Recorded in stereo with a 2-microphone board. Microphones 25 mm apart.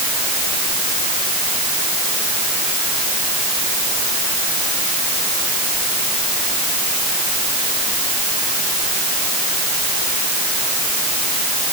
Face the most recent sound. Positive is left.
No sound to turn to.